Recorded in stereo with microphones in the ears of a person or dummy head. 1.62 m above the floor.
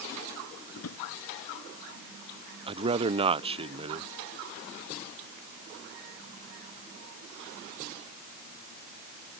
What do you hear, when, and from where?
0.7 s a drawer: 85° left
2.7 s a man speaking: 30° right (ahead or behind)